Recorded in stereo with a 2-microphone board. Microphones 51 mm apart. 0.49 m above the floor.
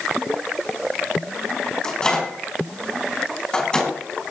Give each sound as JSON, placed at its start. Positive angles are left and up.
{"t": 1.8, "sound": "a microwave", "side_deg": 15, "distance_m": 3.5}